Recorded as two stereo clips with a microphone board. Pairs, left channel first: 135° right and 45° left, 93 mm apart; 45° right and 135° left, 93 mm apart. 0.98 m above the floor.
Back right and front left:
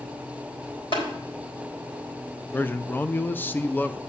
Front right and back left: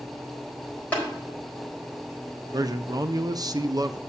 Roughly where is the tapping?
Behind right.